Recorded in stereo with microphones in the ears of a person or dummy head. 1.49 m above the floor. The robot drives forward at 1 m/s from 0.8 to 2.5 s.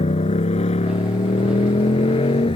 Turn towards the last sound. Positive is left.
turn(degrees=25)  # may be behind; listen again after turning